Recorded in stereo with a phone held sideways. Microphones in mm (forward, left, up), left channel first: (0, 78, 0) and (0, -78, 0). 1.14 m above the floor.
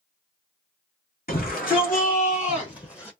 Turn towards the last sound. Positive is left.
turn(degrees=10)  # may be behind; listen again after turning